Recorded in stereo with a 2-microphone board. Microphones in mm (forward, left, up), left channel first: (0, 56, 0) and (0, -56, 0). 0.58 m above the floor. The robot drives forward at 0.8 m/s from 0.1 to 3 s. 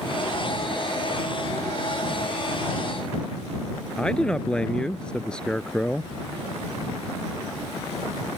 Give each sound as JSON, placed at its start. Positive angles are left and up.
{"t": 4.0, "sound": "a man speaking", "side_deg": 10}